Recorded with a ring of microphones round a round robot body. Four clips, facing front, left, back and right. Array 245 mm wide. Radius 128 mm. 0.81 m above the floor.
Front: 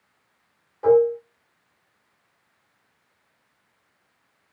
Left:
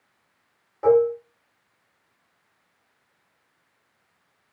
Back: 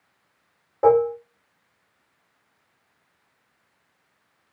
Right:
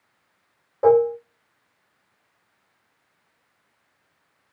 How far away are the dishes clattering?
About 2.0 m.